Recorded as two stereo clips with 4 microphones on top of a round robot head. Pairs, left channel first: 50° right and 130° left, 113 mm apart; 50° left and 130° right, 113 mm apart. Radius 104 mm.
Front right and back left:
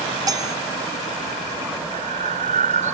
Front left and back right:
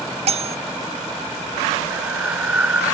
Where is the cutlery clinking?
170° right.